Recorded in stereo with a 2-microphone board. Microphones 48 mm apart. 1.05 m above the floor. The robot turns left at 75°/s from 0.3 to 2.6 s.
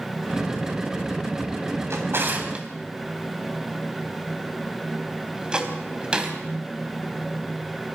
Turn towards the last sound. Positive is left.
turn(degrees=-20)  # may be behind; listen again after turning